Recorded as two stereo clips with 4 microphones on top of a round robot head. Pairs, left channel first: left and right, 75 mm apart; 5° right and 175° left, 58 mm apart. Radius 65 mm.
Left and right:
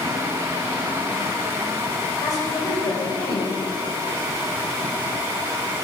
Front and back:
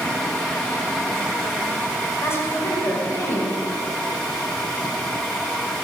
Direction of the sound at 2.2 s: 45° left.